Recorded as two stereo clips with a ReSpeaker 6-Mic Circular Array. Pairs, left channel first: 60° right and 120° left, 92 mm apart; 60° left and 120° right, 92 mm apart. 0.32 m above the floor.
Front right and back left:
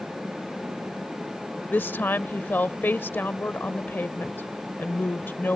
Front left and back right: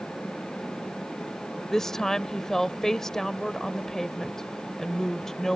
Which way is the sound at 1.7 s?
20° right.